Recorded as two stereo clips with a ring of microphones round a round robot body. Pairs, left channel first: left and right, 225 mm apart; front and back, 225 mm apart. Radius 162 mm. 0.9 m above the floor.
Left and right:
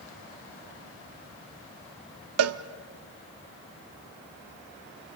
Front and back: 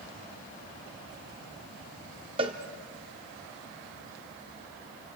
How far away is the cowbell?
About 0.7 m.